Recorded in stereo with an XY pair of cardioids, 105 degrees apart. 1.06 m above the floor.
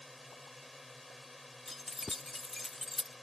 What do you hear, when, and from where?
0.0 s a drone: 15° left
1.7 s keys jangling: 15° left